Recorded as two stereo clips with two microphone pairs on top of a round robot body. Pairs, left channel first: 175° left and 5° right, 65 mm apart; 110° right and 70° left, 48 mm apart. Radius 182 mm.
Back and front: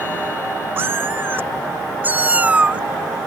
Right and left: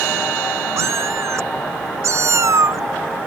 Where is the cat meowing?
50° left; by 2.8 s 65° left.